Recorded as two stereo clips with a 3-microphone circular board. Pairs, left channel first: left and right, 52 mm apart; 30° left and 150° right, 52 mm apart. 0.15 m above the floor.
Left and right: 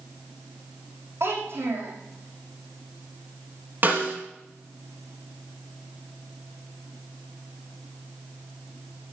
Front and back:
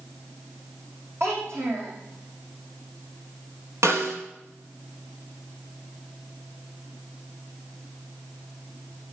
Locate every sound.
1.2 s a child speaking: 120° right, 6 m
3.8 s a snare drum: 135° right, 2.5 m